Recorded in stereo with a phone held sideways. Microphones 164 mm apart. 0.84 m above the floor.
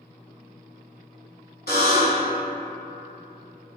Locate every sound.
1.7 s a buzzer: 65° left (ahead or behind), 1.3 m